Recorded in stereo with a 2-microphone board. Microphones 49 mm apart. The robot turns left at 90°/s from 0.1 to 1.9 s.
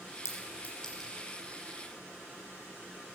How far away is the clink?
About 4 m.